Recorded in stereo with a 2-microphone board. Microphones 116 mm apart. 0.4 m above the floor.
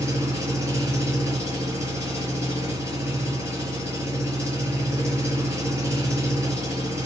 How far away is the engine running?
About 3.5 m.